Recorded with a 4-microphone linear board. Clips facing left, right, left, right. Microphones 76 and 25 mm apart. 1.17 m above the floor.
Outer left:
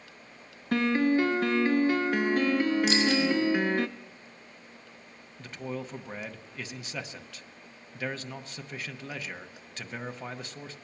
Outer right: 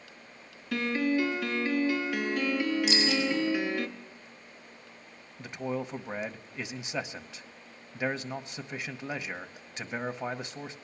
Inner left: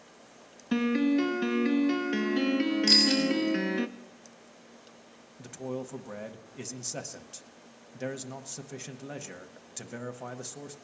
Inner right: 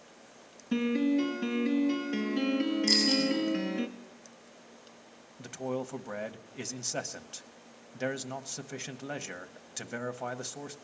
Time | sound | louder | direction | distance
0.7 | a piano | outer left 4 dB, inner left 2 dB | 40° left (ahead or behind) | 0.8 m
2.9 | a bicycle bell | outer left 3 dB, inner left 4 dB | 90° left | 5.5 m
5.4 | a man speaking | outer right 3 dB, inner right 2 dB | 20° right (ahead or behind) | 0.9 m